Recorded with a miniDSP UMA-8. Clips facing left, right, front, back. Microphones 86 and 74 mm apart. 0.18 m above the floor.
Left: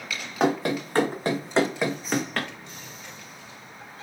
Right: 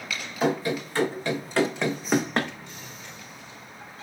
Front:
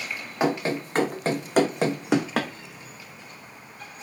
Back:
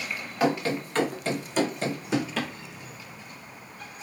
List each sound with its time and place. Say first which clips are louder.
0.4 s running footsteps: left 2 dB, front 1 dB; 65° left, 1.0 m; by 2.5 s 35° right, 0.6 m